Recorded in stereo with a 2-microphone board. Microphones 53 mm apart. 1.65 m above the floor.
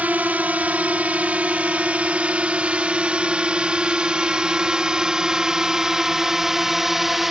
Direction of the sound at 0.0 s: 30° right (ahead or behind).